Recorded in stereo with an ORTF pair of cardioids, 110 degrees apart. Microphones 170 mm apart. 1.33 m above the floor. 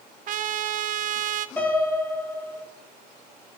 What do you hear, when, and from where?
0.3 s a trumpet: 50° right, 0.5 m
1.6 s a piano: 10° left, 5 m